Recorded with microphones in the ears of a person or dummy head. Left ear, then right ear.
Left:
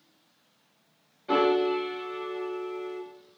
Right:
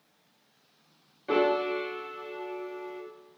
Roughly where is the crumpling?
I don't hear crumpling.